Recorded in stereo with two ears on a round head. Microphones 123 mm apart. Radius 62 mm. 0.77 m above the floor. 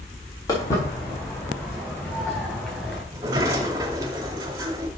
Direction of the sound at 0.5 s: 25° left (ahead or behind).